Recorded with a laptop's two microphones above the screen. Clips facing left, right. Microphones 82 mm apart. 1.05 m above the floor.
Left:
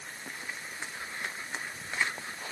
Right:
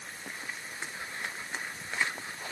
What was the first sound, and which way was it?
Only background noise.